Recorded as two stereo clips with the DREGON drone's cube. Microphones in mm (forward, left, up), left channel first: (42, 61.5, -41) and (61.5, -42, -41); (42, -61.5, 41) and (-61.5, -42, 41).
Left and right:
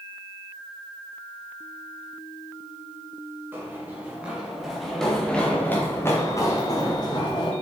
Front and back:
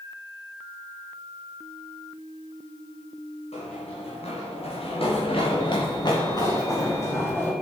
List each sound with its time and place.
3.5 s running footsteps: 10° right, 4 m; by 7.5 s 60° left, 4 m